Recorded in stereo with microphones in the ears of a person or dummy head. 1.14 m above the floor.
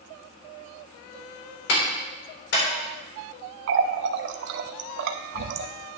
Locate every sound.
1.7 s a clap: 85° left, 4 m
3.7 s a running tap: 70° right (ahead or behind), 0.8 m